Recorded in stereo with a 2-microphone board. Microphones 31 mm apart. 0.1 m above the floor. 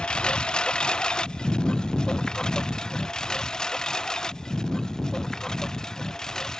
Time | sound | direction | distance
0.0 | a lawn mower | 30° left (ahead or behind) | ?